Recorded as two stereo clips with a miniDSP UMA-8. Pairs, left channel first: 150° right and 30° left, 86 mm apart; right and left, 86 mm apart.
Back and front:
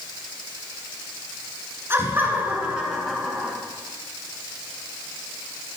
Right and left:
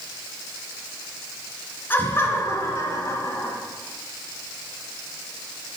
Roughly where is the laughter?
Ahead right.